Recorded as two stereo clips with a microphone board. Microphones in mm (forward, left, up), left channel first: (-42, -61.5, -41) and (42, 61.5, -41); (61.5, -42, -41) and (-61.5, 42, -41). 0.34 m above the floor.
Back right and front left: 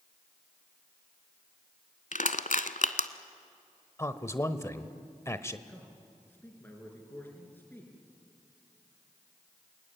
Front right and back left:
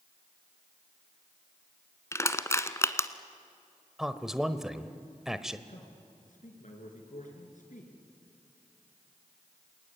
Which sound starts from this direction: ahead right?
A man speaking, at 5.7 s.